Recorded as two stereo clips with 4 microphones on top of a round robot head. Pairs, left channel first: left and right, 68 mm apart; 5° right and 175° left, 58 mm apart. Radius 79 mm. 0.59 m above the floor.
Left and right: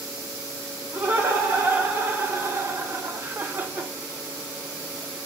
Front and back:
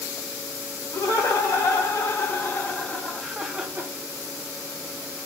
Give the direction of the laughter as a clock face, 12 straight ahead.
1 o'clock.